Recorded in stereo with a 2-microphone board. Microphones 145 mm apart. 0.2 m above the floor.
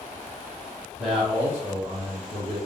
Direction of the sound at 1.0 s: Centre (ahead or behind).